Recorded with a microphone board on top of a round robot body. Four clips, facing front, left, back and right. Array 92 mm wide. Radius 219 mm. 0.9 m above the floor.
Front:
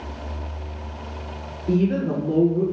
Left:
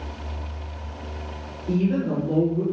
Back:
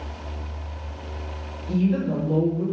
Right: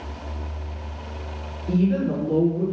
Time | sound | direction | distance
1.7 | a woman speaking | 10° left | 3 m